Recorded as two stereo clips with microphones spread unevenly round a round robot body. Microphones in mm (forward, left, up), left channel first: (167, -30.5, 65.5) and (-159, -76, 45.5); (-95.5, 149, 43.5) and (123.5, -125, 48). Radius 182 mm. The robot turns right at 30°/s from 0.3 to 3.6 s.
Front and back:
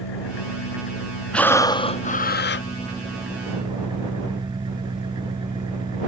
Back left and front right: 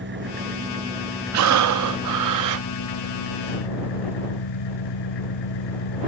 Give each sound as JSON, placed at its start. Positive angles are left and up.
{"t": 0.0, "sound": "an engine running", "azimuth_deg": 10}
{"t": 1.3, "sound": "breathing", "azimuth_deg": -80}